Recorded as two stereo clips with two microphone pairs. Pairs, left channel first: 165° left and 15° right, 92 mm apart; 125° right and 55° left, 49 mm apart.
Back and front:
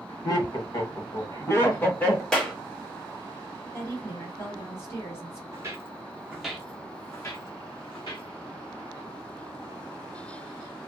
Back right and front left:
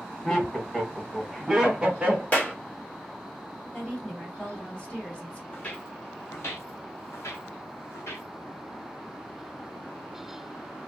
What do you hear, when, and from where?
0.2 s laughter: 155° left, 1.5 m; by 2.2 s 100° left, 1.2 m
2.3 s a clap: 125° right, 1.1 m
3.7 s a woman speaking: 175° right, 1.6 m
5.5 s footsteps: 70° right, 0.9 m; by 8.3 s 155° right, 1.3 m